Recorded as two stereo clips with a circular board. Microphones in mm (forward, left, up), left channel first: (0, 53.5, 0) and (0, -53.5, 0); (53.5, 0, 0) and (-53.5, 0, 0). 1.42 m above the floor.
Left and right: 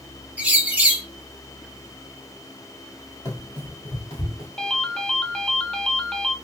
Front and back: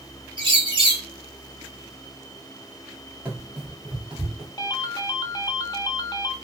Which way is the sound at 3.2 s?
120° left.